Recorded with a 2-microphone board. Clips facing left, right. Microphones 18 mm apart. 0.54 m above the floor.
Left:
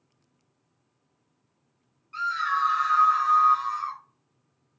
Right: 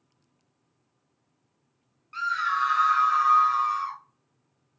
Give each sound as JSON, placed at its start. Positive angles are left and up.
{"t": 2.1, "sound": "a scream", "side_deg": -20, "distance_m": 0.8}